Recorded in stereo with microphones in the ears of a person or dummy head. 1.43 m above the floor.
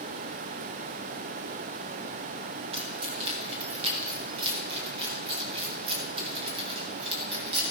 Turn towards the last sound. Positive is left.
turn(degrees=-35)  # may be behind; listen again after turning